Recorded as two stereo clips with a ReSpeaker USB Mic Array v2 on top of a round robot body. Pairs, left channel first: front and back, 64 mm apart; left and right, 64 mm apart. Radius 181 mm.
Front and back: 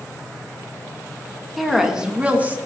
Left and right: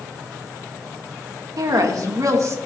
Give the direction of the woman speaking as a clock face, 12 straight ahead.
3 o'clock.